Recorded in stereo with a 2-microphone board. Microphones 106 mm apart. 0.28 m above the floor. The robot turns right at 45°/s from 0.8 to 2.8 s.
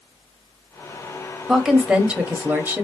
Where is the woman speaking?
Centre (ahead or behind), 0.9 m; by 2.8 s 20° right (ahead or behind), 0.9 m.